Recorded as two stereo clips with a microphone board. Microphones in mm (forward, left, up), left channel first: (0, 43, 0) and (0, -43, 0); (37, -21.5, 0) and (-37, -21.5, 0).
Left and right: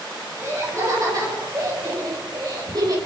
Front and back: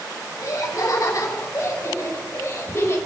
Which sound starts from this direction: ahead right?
Laughter, at 0.4 s.